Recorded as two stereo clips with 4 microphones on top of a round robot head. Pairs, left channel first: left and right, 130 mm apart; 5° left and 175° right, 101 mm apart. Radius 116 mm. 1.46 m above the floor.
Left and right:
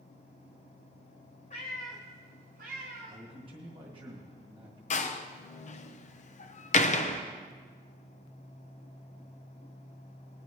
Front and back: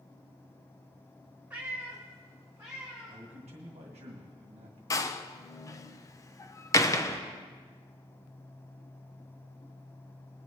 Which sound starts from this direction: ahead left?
A door slam, at 4.9 s.